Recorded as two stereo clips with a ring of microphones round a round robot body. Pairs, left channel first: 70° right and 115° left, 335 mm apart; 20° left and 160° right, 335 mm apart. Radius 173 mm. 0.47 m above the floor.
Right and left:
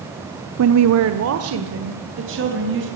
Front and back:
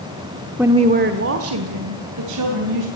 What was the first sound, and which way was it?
A woman speaking, 115° left.